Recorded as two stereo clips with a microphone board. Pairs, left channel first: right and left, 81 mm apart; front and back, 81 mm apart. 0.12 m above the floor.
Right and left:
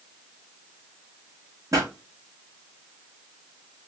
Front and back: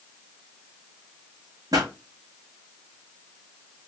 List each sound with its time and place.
1.7 s a pop: 140° left, 5 m